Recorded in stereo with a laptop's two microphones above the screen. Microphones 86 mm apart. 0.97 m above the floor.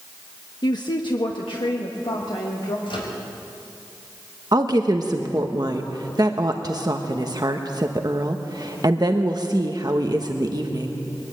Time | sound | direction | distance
0.6 | a woman speaking | 50° left (ahead or behind) | 1.0 m
2.9 | a microwave | 75° left (ahead or behind) | 4.5 m
4.5 | a woman speaking | 50° right (ahead or behind) | 1.0 m